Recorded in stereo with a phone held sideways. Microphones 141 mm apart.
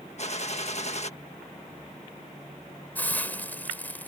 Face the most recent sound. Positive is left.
turn(degrees=10)  # may be behind; listen again after turning